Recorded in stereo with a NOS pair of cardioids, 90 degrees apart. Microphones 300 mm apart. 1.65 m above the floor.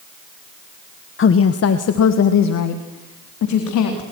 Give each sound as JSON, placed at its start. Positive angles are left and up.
{"t": 1.2, "sound": "a woman speaking", "azimuth_deg": 40, "distance_m": 1.3}